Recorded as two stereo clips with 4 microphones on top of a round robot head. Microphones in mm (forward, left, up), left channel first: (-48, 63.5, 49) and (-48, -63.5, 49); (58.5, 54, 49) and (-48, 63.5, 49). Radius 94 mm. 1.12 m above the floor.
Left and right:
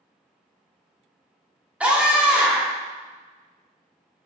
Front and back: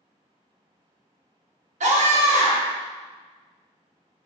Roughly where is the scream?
Behind.